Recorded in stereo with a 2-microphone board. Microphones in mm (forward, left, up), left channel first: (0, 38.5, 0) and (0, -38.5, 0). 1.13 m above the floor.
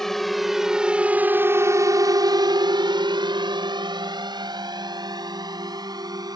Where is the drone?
5° left (ahead or behind); by 6.4 s 60° right (ahead or behind).